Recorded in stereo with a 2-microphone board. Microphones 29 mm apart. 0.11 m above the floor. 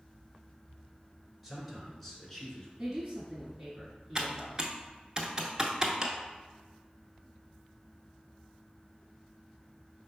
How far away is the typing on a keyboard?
About 0.7 m.